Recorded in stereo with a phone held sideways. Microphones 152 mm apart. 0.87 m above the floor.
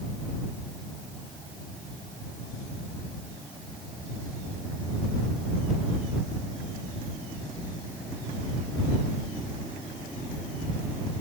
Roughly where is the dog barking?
I don't hear a dog barking.